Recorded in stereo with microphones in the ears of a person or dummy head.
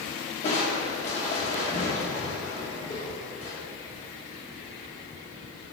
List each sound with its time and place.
0.4 s crushing: 15° left (ahead or behind), 0.9 m